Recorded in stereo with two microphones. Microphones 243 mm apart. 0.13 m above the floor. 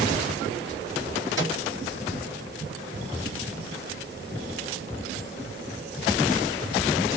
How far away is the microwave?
About 2 m.